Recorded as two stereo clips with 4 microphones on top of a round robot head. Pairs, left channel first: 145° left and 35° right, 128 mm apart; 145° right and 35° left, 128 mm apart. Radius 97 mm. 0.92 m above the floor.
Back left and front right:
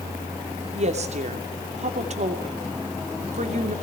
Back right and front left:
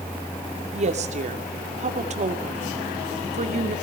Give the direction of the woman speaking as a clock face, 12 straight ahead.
12 o'clock.